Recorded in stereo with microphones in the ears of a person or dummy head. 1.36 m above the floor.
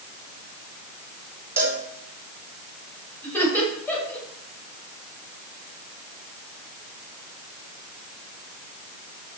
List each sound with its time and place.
1.6 s a cowbell: 20° right (ahead or behind), 3 m
3.2 s laughter: 10° left (ahead or behind), 7 m